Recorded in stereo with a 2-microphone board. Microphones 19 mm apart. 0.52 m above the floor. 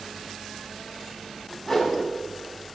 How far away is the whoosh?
About 5 m.